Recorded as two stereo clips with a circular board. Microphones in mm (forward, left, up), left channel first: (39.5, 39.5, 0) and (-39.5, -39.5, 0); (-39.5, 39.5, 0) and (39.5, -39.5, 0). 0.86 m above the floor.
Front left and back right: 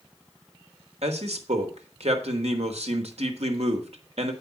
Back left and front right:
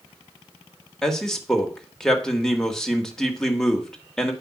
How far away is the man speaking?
About 1.7 m.